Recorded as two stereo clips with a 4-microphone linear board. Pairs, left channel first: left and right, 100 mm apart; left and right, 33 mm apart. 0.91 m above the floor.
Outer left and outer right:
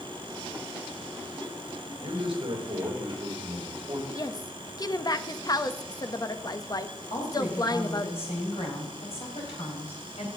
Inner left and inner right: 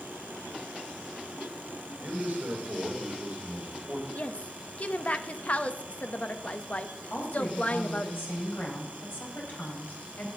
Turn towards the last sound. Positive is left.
turn(degrees=80)